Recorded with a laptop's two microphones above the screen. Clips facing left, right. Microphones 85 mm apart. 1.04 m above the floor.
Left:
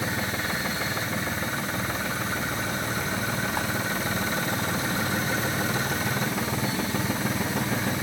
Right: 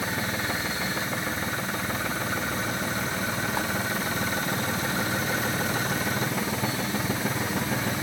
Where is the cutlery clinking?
I don't hear cutlery clinking.